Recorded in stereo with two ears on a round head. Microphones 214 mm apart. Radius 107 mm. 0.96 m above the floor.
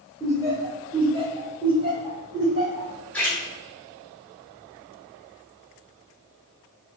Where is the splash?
5° left (ahead or behind), 0.9 m.